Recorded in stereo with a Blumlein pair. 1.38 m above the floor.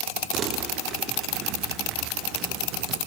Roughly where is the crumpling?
Ahead right.